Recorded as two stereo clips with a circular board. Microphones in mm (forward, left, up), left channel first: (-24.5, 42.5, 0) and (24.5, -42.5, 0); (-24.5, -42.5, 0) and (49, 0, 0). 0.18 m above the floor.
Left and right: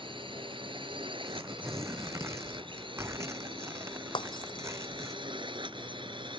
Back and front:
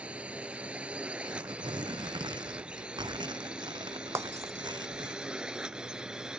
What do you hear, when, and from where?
0.0 s a drone: 45° right; by 6.4 s 50° right
1.2 s tearing paper: straight ahead
4.2 s breaking glass: 85° left